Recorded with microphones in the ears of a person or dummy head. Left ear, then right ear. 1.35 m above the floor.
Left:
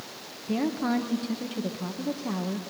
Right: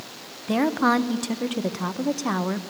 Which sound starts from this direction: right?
A woman speaking, at 0.5 s.